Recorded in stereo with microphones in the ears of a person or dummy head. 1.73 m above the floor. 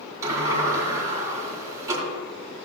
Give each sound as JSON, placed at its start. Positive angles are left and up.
{"t": 0.2, "sound": "a sliding door", "side_deg": -20, "distance_m": 3.0}